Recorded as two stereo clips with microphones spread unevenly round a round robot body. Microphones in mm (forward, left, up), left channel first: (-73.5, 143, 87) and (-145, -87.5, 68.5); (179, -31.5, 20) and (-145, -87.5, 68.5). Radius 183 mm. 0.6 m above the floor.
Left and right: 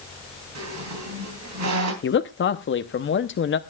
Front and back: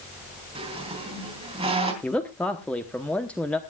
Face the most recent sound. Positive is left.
turn(degrees=85)